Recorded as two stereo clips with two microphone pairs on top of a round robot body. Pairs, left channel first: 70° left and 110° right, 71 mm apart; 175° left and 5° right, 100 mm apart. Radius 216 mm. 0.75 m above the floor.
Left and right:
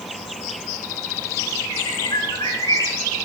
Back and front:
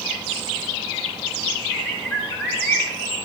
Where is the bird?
110° left, 3.5 m.